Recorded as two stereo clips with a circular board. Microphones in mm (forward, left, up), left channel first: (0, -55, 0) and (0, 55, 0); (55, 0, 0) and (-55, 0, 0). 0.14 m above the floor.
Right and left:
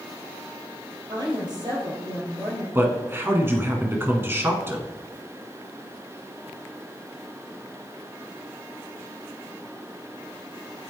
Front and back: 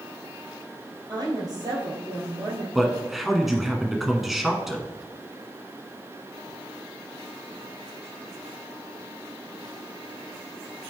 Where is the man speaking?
95° left, 1.0 m.